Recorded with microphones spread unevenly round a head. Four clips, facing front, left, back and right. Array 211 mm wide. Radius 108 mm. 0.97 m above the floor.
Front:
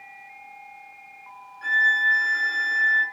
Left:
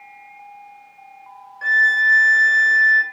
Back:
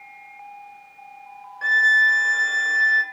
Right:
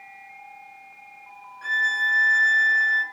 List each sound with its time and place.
1.6 s a violin: 140° left, 3.5 m